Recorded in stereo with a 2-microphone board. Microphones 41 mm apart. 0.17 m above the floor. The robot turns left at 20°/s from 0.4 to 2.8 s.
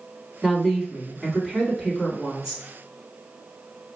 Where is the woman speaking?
5° left (ahead or behind), 1.6 m; by 2.6 s 15° right (ahead or behind), 1.6 m.